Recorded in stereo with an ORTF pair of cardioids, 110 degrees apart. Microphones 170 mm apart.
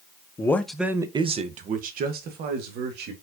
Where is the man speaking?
20° left, 0.8 m; by 3.1 s 75° right, 1.8 m.